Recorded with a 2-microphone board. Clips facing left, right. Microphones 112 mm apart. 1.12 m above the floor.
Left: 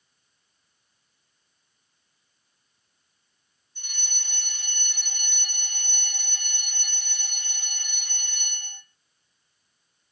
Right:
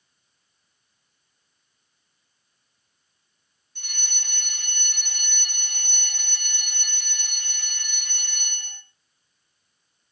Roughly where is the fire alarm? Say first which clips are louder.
Right 2 dB; right.